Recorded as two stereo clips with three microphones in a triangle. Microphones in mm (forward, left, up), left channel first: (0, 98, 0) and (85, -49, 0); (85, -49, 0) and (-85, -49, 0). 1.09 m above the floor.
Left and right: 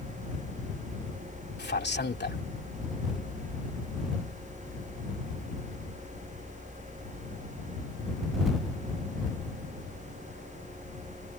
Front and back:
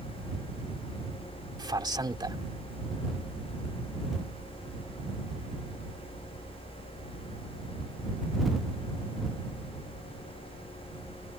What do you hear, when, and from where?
1.6 s a man speaking: 115° left